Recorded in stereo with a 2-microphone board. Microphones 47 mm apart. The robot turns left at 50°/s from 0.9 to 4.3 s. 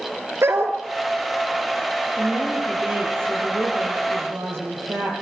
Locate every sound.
0.4 s a dog barking: 65° right (ahead or behind), 2 m
2.2 s a woman speaking: 5° right, 6 m; by 5.1 s 110° right, 6 m